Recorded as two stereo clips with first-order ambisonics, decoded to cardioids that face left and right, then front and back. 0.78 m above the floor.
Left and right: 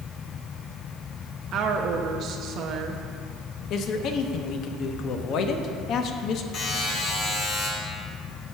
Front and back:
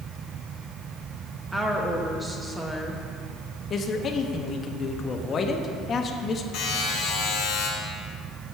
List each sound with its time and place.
1.5 s a woman speaking: 105° right, 0.6 m
3.7 s a man speaking: 60° left, 0.7 m
6.5 s a buzzer: 45° left, 3 m